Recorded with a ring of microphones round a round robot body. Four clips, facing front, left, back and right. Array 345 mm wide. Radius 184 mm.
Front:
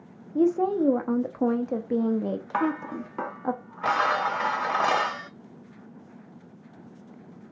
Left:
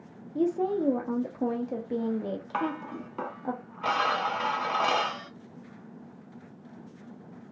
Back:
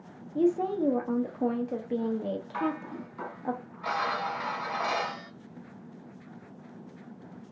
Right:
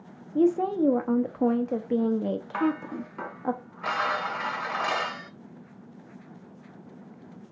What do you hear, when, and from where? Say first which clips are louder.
0.3 s a woman speaking: right 4 dB, front 4 dB; 35° right, 0.8 m
2.5 s dishes clattering: right 4 dB, front 7 dB; 15° left, 0.7 m